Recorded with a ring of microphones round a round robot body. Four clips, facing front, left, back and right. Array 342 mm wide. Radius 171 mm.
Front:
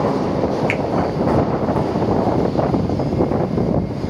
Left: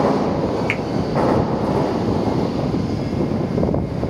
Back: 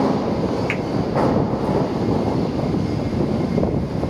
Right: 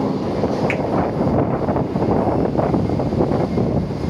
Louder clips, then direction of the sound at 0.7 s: Right 3 dB, front 3 dB; 45° left.